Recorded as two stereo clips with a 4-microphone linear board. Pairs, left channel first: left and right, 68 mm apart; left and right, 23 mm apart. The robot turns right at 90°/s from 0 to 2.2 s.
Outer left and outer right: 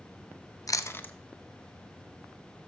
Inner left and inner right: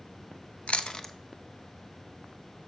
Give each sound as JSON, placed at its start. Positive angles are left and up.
{"t": 0.7, "sound": "chewing", "side_deg": 60, "distance_m": 0.6}